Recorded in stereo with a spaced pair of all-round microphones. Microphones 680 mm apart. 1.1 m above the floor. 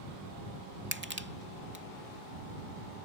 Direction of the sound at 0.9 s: 15° right (ahead or behind).